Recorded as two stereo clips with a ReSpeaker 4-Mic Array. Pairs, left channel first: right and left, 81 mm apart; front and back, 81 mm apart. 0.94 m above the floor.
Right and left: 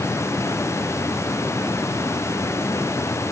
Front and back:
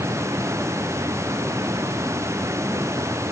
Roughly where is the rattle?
I don't hear a rattle.